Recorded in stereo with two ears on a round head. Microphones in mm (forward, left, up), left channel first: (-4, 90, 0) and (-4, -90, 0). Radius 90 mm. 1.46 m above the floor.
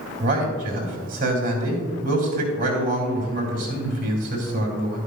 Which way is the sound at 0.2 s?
45° right (ahead or behind).